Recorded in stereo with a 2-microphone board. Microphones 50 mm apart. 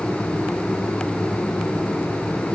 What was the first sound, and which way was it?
Only background noise.